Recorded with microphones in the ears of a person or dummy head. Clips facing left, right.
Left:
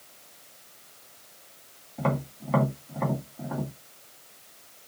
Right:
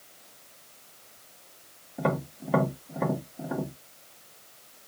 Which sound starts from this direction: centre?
Tapping, at 2.0 s.